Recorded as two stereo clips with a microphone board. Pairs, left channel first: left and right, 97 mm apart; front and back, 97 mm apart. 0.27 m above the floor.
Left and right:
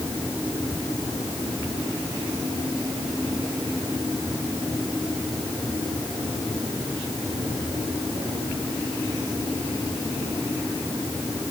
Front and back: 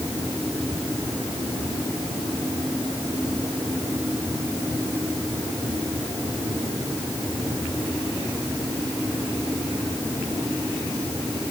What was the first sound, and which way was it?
Only background noise.